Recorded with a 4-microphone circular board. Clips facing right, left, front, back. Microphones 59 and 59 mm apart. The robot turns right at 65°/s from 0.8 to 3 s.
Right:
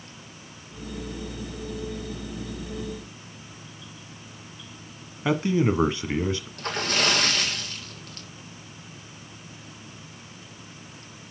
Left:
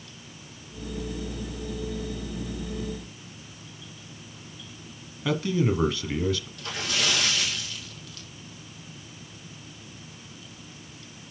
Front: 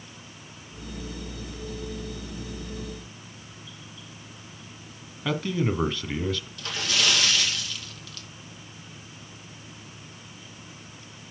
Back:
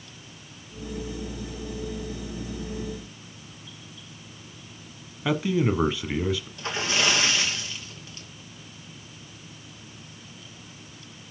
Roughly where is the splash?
Behind right.